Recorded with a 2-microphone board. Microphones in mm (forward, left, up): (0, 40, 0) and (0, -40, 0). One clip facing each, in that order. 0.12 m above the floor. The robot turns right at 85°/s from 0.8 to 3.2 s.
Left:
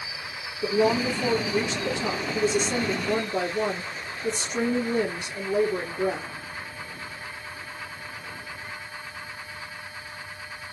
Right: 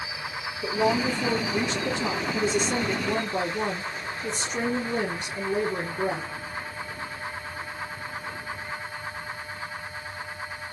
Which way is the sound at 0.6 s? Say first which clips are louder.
Left 2 dB; 80° left.